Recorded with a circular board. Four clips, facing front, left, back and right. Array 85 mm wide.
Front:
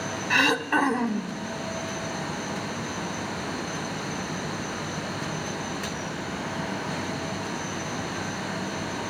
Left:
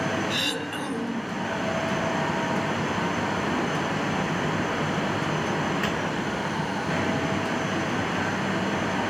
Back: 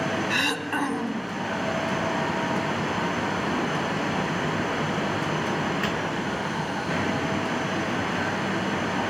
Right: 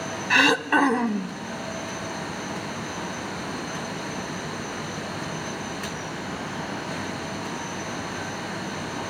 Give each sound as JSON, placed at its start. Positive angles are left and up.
{"t": 0.3, "sound": "throat clearing", "azimuth_deg": -70, "distance_m": 0.5}